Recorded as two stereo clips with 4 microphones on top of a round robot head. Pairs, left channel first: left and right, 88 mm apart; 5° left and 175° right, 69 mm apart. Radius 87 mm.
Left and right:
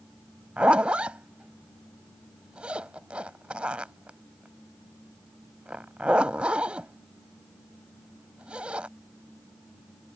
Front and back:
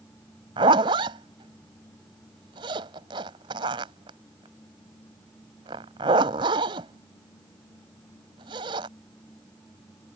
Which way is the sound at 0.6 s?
170° right.